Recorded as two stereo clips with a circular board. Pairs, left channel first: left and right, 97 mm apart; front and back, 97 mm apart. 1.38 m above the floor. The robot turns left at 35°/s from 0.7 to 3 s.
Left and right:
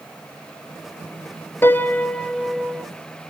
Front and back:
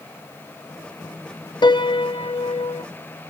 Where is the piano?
30° left, 0.5 m; by 2.8 s 15° right, 0.5 m.